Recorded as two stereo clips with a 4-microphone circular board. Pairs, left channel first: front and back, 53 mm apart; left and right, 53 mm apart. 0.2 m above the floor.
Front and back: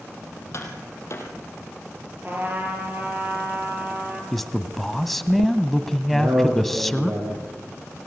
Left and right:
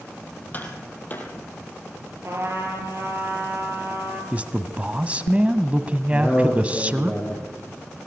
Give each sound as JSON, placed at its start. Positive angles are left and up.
{"t": 0.5, "sound": "tapping", "azimuth_deg": 35, "distance_m": 4.0}
{"t": 2.2, "sound": "a trumpet", "azimuth_deg": -125, "distance_m": 5.0}
{"t": 4.3, "sound": "a man speaking", "azimuth_deg": -80, "distance_m": 1.0}
{"t": 6.1, "sound": "a man speaking", "azimuth_deg": 180, "distance_m": 7.0}